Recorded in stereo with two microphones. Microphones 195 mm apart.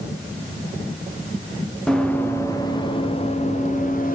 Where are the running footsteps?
Centre (ahead or behind), 2.5 m; by 4.2 s 40° left (ahead or behind), 3.5 m.